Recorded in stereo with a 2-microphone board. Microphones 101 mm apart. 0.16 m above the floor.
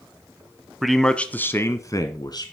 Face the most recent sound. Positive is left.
turn(degrees=45)  # may be behind; listen again after turning